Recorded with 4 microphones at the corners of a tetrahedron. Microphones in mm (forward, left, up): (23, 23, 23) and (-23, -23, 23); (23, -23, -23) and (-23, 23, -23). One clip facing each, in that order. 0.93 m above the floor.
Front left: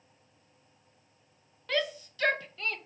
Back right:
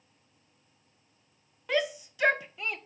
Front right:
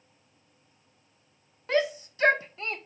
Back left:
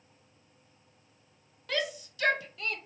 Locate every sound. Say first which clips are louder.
1.7 s a shout: back right 2 dB, front right 7 dB; 70° right, 0.5 m